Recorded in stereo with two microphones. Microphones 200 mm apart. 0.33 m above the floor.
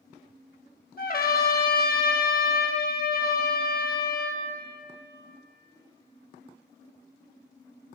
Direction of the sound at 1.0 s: 50° left (ahead or behind).